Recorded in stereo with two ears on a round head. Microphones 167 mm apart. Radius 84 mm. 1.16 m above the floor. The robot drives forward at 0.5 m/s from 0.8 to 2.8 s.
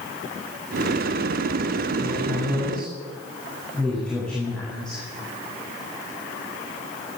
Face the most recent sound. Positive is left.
turn(degrees=5)  # may be behind; listen again after turning